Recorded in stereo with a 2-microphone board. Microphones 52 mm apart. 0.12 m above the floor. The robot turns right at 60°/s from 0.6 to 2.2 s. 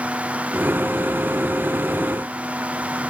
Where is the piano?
No piano in this recording.